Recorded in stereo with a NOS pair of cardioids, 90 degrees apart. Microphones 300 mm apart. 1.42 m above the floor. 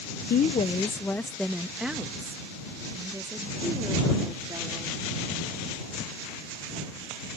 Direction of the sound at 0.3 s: 35° left.